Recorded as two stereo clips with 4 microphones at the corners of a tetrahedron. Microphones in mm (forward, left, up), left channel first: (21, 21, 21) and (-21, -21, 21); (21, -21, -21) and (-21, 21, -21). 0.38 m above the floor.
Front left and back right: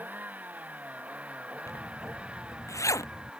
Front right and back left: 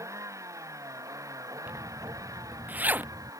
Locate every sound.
0.0 s a vehicle: 165° left; by 3.4 s 150° left
1.7 s a zipper: 70° left